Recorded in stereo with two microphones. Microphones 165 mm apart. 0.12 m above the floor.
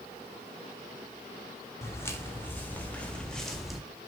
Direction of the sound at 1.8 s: 15° left (ahead or behind).